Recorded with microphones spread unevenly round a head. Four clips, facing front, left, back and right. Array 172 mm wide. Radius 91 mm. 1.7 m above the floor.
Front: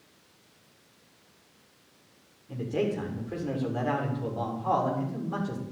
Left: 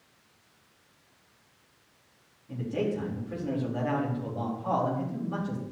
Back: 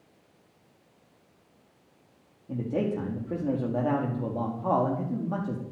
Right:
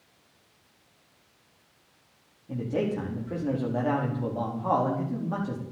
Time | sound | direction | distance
2.5 | a man speaking | 155° right | 4.5 m